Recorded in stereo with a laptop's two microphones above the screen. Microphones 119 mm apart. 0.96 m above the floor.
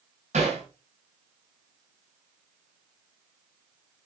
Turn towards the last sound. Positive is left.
turn(degrees=-85)